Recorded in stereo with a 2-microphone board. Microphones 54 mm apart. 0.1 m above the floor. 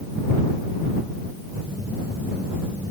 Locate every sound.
1.6 s a phone buzzing: 35° right (ahead or behind)